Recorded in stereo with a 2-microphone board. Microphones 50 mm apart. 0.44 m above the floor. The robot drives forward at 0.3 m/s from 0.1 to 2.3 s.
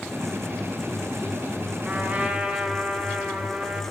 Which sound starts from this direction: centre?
A trumpet, at 1.8 s.